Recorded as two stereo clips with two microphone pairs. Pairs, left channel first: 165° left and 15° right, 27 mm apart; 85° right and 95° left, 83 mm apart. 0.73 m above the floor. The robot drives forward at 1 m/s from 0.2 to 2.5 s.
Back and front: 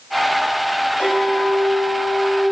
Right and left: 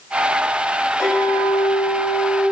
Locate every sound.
1.0 s a clink: 155° left, 1.8 m; by 2.4 s 165° left, 3 m